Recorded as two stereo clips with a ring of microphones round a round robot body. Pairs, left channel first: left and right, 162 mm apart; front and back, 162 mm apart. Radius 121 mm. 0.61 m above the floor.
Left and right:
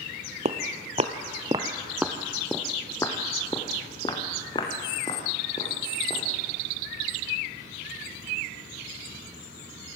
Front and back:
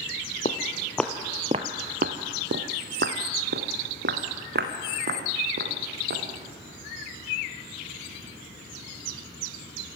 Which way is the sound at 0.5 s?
55° right.